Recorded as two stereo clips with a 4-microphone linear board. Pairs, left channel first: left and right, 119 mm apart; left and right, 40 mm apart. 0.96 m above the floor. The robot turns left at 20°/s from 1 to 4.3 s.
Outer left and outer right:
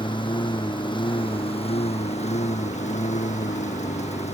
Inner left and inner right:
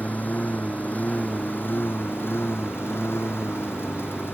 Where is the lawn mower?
135° left; by 4.3 s 70° left.